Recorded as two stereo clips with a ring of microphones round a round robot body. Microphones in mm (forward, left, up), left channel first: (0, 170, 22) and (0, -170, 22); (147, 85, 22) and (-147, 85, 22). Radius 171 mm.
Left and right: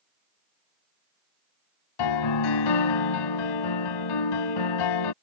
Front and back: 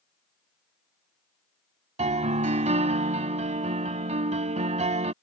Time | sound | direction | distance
2.0 | a piano | 110° left | ?